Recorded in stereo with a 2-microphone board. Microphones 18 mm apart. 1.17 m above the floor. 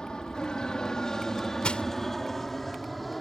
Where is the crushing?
85° left.